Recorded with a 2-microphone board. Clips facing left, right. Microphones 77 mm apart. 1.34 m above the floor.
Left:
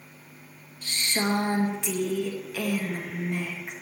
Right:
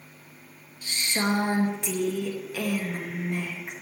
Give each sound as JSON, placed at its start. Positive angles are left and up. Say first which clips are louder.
{"t": 0.8, "sound": "a woman speaking", "louder": "even", "side_deg": -10, "distance_m": 1.4}